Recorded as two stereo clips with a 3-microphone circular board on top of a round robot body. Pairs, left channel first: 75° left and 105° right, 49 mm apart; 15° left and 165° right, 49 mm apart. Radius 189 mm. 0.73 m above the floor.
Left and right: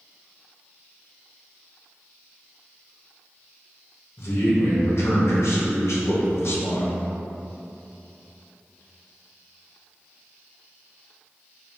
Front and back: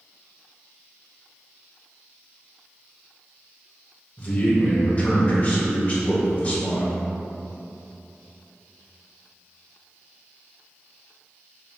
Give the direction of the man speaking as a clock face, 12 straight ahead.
10 o'clock.